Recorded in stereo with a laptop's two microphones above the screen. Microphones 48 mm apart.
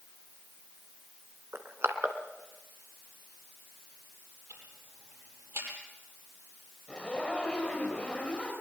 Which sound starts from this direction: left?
A zipper, at 6.9 s.